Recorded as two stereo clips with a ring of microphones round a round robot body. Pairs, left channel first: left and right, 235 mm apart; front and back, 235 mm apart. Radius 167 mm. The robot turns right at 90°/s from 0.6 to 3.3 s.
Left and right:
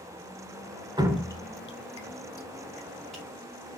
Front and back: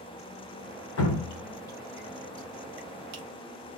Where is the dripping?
20° right, 1.3 m; by 3.2 s 175° right, 1.3 m.